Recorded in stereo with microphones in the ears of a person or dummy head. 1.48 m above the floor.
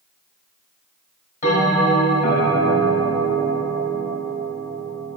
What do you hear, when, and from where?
1.4 s a bell: 40° left (ahead or behind), 1.5 m